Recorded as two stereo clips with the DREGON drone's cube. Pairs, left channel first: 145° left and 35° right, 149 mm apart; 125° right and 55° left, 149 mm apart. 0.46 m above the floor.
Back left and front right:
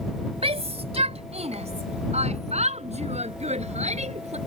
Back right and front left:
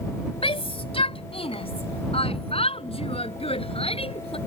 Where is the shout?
75° right.